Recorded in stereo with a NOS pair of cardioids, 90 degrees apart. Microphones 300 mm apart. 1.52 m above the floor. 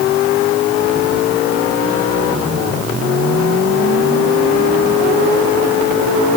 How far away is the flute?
I don't hear a flute.